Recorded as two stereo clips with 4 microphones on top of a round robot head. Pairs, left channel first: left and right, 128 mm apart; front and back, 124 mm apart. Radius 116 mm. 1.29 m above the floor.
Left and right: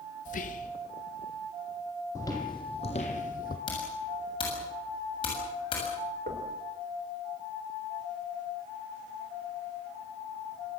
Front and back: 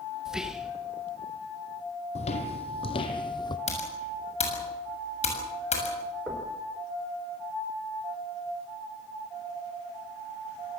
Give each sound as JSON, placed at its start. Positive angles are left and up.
{"t": 0.2, "sound": "whispering", "azimuth_deg": 95, "distance_m": 1.8}
{"t": 2.1, "sound": "footsteps", "azimuth_deg": 15, "distance_m": 1.9}
{"t": 3.7, "sound": "typing on a keyboard", "azimuth_deg": 30, "distance_m": 7.0}
{"t": 6.3, "sound": "knocking", "azimuth_deg": -90, "distance_m": 4.5}